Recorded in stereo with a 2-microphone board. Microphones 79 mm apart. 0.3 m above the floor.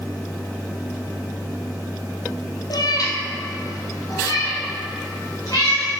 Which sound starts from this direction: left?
A cat meowing, at 2.7 s.